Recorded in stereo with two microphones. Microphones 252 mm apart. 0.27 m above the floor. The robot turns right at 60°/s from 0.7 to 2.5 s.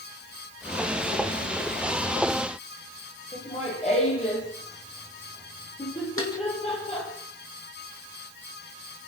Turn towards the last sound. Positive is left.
turn(degrees=60)  # may be behind; listen again after turning